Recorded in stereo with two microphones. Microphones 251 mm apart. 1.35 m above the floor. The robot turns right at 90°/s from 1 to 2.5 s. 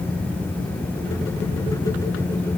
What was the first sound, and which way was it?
Only background noise.